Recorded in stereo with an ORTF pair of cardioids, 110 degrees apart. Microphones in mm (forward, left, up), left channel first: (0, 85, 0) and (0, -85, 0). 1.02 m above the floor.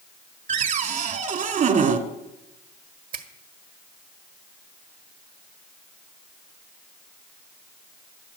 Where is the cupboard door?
50° right, 1.7 m.